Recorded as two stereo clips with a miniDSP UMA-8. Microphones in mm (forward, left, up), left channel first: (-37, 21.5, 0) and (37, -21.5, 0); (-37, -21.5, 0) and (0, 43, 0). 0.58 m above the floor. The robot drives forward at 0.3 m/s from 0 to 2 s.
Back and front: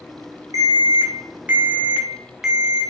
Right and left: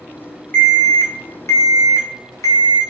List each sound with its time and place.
0.5 s an alarm: 55° right, 0.6 m; by 2.8 s 115° right, 0.6 m